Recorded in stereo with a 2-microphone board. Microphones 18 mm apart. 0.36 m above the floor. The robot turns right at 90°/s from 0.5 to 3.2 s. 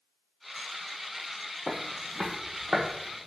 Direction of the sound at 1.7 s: 40° left (ahead or behind).